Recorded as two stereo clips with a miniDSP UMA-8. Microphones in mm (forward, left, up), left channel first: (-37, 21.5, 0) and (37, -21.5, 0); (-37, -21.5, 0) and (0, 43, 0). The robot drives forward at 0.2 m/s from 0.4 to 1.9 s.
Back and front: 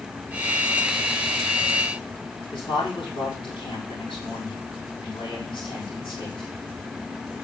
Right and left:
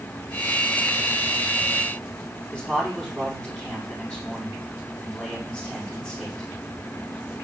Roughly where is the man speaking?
Behind.